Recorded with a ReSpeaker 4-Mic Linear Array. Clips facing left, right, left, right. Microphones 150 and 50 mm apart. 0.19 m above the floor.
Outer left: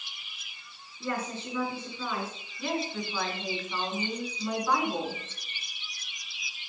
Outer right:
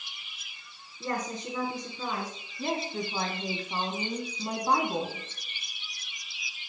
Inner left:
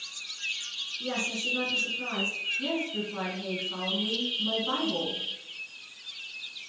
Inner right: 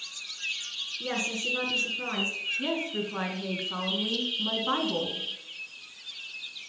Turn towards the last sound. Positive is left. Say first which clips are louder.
# even, inner right 2 dB
turn(degrees=-30)  # may be behind; listen again after turning